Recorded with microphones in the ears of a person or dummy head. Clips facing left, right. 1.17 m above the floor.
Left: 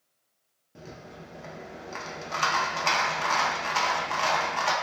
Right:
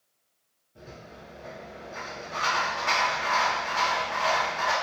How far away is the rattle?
About 0.6 m.